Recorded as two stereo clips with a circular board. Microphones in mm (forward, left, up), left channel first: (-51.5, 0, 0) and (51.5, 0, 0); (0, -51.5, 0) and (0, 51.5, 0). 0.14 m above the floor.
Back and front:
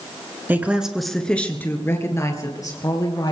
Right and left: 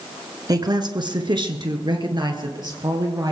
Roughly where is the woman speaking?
Ahead left.